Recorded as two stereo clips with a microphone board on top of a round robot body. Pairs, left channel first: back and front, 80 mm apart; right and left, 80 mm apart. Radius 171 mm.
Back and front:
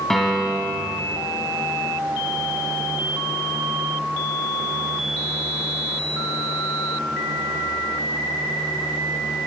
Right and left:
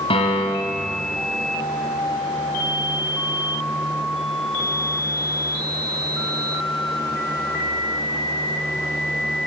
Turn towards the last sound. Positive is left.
turn(degrees=-90)